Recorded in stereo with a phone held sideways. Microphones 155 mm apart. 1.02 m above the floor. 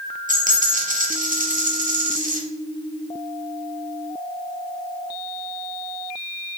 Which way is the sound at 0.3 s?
55° right (ahead or behind).